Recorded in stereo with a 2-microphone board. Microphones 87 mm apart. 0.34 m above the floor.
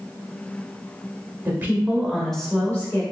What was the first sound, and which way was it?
A woman speaking, 25° right (ahead or behind).